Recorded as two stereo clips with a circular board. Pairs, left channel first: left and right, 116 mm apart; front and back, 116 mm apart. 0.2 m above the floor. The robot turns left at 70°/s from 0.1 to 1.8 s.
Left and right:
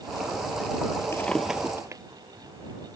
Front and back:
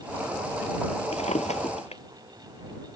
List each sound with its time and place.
1.1 s a drawer: 20° left; by 2.0 s 25° right